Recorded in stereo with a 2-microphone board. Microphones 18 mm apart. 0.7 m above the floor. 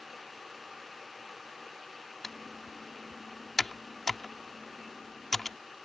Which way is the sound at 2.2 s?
15° left (ahead or behind).